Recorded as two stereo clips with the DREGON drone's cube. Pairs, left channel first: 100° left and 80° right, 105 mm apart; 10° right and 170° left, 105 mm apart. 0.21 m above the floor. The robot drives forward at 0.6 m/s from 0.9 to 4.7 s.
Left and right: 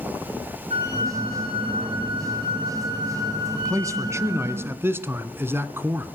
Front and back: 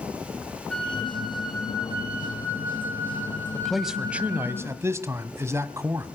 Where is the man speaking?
90° right, 1.1 m; by 6.1 s 135° right, 1.3 m.